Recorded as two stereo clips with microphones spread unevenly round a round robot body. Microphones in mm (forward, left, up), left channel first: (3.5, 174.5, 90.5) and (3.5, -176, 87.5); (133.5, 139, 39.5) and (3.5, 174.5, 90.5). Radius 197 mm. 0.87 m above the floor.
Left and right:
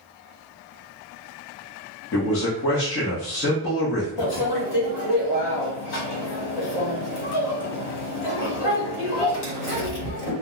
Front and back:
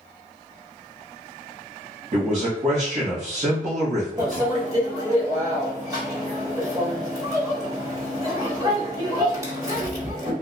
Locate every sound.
2.1 s a man speaking: 125° left, 1.1 m
4.2 s a microwave: 90° left, 1.4 m